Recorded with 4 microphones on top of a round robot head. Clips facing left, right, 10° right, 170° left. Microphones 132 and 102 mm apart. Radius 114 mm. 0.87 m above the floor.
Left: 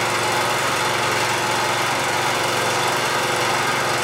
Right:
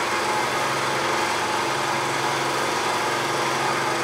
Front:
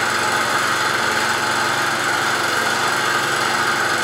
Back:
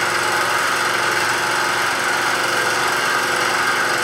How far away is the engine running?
About 3.5 m.